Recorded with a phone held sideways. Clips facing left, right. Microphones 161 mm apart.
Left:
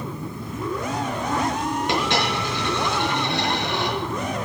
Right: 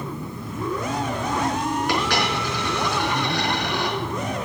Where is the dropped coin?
25° left (ahead or behind), 4 m.